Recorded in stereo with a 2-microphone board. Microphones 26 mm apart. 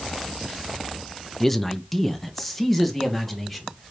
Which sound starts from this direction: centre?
A man speaking, at 1.4 s.